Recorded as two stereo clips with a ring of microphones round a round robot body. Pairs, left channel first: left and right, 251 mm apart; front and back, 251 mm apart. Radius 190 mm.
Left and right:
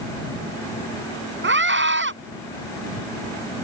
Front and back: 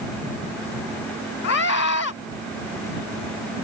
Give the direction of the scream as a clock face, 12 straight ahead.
2 o'clock.